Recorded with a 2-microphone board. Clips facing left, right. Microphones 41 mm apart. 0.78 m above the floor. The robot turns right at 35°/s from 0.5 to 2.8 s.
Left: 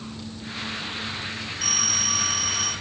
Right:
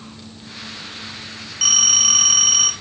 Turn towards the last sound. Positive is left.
turn(degrees=-45)